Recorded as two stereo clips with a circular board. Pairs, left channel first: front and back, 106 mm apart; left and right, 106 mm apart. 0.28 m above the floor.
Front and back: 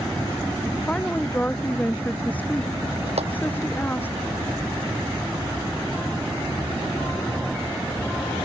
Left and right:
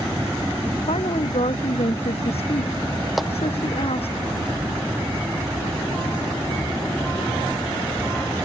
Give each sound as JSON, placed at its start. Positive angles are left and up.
{"t": 0.9, "sound": "a woman speaking", "azimuth_deg": 80}
{"t": 3.2, "sound": "a clap", "azimuth_deg": 180}